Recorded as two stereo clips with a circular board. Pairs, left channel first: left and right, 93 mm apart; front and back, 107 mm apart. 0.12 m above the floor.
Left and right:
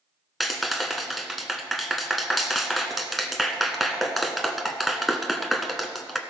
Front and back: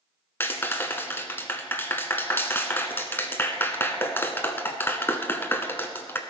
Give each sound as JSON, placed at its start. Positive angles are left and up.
{"t": 0.4, "sound": "a clap", "azimuth_deg": 0, "distance_m": 0.8}